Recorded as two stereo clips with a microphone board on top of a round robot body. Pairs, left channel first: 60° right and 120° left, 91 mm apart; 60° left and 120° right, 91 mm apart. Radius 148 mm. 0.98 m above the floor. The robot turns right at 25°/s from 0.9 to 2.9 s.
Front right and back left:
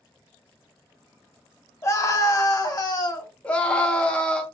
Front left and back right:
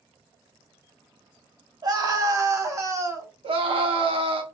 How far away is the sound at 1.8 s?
About 1.0 m.